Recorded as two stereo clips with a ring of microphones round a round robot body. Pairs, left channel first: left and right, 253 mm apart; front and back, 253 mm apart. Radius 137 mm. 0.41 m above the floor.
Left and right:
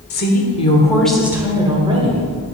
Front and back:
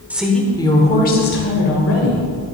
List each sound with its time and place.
0.1 s a woman speaking: 100° left, 1.3 m; by 2.3 s 30° right, 2.0 m